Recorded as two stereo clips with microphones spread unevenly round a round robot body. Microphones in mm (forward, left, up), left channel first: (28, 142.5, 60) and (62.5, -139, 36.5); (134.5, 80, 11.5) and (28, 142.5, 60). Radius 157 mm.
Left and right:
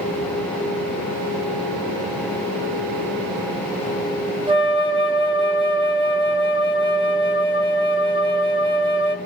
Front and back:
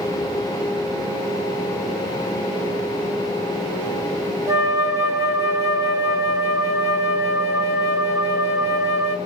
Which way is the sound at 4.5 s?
125° right.